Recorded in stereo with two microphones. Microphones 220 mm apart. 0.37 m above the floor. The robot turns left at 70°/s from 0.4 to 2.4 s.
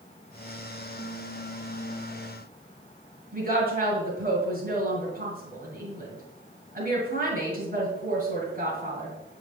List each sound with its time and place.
3.3 s a woman speaking: 45° right (ahead or behind), 2 m